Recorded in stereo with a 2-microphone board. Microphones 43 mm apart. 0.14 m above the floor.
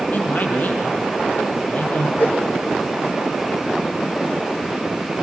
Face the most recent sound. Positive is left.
turn(degrees=45)  # may be behind; listen again after turning